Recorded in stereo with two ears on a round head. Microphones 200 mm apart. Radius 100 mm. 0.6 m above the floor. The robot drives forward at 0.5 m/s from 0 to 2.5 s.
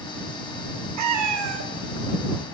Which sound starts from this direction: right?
A cat meowing, at 1.0 s.